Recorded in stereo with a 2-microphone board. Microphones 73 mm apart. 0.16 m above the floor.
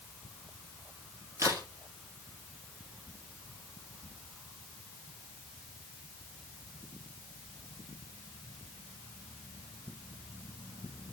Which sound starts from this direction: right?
A crack, at 1.4 s.